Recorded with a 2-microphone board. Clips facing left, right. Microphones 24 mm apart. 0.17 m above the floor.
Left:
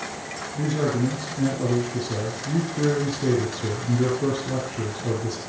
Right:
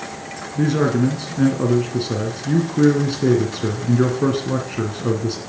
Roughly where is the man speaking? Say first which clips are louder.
Right 6 dB; right.